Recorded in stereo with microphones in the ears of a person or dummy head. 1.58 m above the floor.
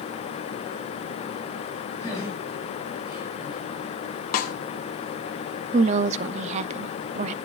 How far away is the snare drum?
About 0.7 m.